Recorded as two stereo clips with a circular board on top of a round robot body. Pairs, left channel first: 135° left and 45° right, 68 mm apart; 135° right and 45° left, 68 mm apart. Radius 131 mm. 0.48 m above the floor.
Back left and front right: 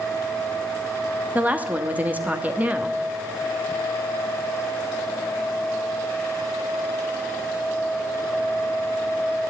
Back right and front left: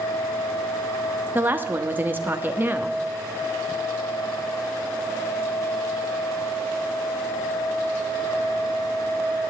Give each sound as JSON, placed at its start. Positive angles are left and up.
{"t": 1.4, "sound": "a woman speaking", "azimuth_deg": 5, "distance_m": 1.4}